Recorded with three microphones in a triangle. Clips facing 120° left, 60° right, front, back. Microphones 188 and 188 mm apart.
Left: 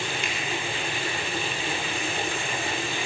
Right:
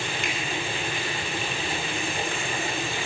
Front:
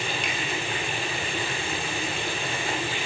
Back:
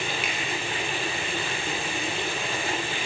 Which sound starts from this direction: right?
A finger snap, at 0.2 s.